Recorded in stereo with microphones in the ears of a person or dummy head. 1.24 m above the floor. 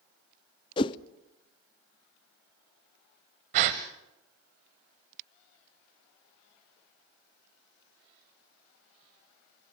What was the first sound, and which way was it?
A whoosh, 25° left (ahead or behind).